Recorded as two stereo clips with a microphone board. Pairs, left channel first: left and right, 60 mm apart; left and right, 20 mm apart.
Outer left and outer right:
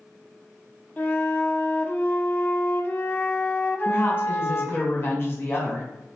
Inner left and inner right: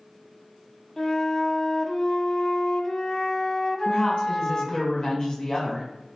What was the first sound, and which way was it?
A flute, 30° left (ahead or behind).